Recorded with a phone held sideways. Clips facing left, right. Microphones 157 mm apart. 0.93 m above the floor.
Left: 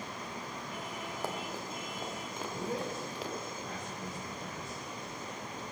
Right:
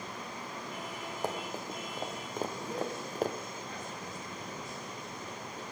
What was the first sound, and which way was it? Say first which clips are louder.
Running footsteps: right 3 dB; 20° right (ahead or behind).